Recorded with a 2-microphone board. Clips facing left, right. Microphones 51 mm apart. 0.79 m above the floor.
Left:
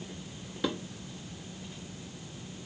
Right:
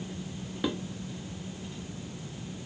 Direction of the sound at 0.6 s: 10° right (ahead or behind).